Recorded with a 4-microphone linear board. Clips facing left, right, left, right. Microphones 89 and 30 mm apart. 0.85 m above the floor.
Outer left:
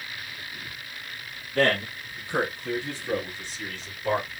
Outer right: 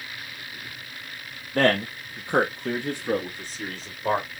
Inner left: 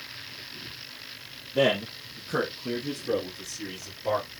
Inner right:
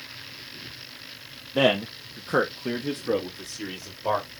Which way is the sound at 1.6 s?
45° right (ahead or behind).